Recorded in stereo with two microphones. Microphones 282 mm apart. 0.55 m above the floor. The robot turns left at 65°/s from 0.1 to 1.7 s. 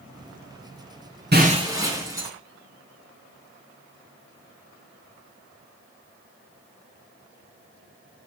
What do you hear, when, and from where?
1.3 s breaking glass: 35° right (ahead or behind), 3.5 m; by 2.3 s 10° right (ahead or behind), 3.5 m